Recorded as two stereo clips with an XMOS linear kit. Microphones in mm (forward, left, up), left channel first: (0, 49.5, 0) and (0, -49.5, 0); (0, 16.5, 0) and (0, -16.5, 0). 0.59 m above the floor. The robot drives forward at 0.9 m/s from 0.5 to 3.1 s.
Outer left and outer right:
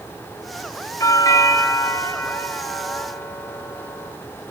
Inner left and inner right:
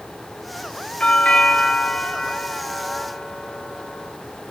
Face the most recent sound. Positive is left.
turn(degrees=20)  # may be behind; listen again after turning